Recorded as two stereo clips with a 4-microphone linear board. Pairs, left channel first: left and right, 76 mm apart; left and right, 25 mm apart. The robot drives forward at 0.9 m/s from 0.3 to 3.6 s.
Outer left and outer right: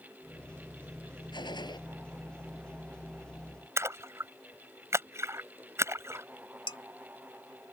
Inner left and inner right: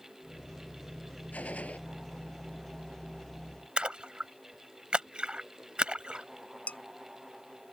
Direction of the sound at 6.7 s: 80° left.